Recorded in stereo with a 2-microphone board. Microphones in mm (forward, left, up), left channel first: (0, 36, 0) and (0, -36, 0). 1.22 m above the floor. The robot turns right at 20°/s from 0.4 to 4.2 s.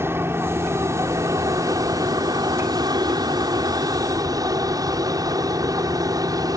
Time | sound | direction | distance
0.0 | an aircraft | 145° right | ?